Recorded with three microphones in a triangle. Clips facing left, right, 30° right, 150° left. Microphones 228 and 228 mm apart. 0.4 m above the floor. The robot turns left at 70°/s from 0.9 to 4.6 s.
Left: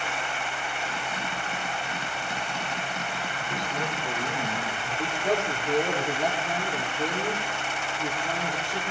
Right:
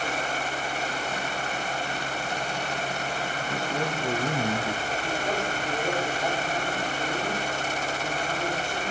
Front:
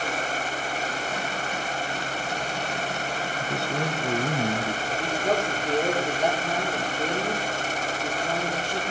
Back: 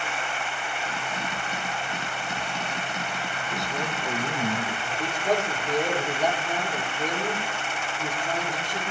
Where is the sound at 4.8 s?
25° left, 8 m.